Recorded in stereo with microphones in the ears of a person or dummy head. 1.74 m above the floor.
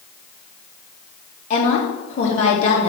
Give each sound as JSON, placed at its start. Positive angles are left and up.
{"t": 1.5, "sound": "a woman speaking", "side_deg": 35, "distance_m": 3.5}